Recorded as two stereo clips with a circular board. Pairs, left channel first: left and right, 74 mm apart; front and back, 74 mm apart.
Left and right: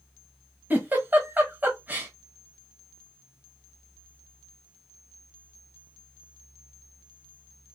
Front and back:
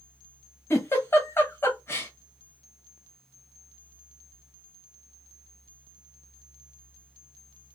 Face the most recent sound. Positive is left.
turn(degrees=-35)